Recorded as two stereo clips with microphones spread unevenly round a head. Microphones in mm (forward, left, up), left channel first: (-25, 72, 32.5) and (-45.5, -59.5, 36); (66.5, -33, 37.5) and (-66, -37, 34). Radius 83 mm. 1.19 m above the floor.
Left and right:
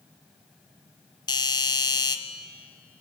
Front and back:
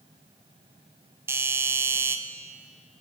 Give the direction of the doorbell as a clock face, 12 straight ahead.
8 o'clock.